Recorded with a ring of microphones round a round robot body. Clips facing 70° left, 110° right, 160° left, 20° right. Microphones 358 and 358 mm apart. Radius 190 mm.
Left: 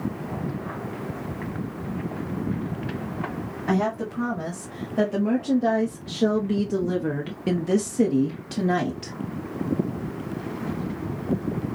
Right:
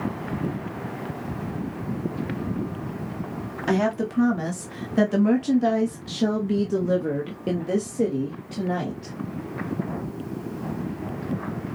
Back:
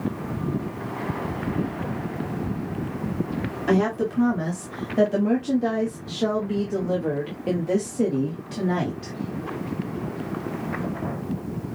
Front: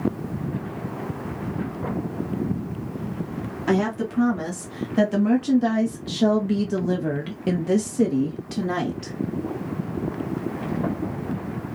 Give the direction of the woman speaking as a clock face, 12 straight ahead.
3 o'clock.